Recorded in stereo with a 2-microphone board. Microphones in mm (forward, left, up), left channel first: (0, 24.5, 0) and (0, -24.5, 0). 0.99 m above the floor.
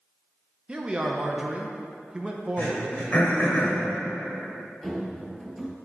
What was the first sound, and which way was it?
A man speaking, 20° right (ahead or behind).